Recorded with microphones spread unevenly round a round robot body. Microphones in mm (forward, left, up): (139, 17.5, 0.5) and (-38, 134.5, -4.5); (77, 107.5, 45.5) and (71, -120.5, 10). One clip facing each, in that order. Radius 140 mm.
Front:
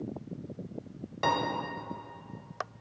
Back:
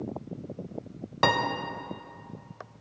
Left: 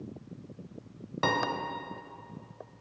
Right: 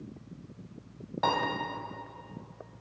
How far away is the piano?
About 0.8 m.